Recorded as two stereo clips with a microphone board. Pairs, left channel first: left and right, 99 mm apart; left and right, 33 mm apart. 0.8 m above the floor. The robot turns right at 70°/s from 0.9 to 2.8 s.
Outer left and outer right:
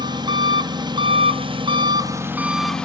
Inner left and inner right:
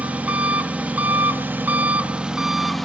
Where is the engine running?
125° right, 0.7 m; by 2.9 s 10° left, 0.7 m.